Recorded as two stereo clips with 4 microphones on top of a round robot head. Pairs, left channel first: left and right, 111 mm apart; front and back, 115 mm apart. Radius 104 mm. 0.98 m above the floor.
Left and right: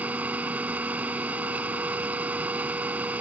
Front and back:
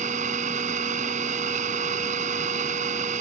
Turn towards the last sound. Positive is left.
turn(degrees=-170)